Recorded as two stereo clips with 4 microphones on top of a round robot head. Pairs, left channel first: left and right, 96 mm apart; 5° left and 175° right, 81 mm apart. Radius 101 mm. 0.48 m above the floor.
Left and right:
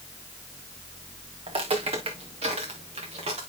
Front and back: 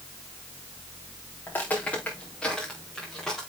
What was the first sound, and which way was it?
Footsteps, 65° right.